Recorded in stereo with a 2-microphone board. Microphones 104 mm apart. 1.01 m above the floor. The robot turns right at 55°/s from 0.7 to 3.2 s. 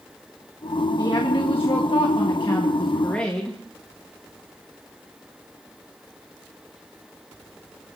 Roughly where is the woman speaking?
Ahead left.